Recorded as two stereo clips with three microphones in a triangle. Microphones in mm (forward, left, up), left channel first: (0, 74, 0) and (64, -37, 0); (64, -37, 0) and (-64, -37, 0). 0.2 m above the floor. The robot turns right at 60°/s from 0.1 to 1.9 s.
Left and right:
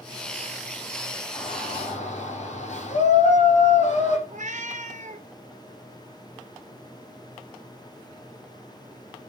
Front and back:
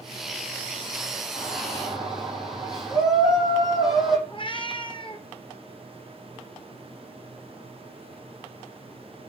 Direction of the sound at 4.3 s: 50° right.